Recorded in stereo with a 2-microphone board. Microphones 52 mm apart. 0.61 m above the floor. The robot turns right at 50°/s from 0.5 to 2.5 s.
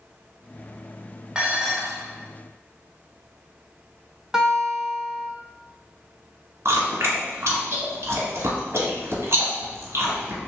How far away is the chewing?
About 1.3 m.